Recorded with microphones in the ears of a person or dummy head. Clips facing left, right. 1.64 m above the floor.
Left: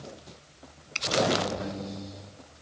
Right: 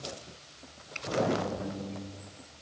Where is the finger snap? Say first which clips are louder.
Left 3 dB; 85° left.